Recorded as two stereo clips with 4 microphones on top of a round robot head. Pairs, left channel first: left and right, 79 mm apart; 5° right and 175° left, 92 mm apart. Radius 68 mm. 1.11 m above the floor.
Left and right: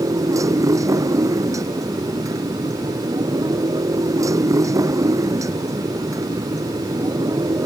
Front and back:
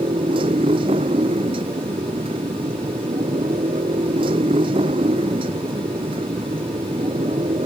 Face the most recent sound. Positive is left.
turn(degrees=-140)